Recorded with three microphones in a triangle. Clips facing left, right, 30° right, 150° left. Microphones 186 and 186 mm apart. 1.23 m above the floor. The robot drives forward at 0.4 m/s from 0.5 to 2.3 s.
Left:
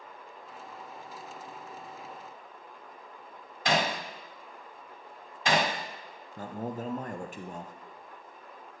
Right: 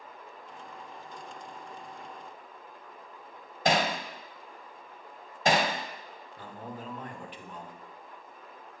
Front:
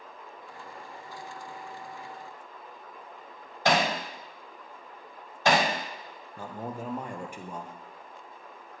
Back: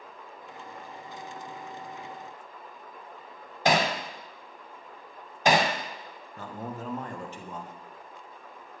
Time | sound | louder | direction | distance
3.6 | hammering | right 2 dB, back 1 dB | 135° right | 1.6 m
6.4 | a man speaking | left 7 dB, front 1 dB | 45° left | 0.8 m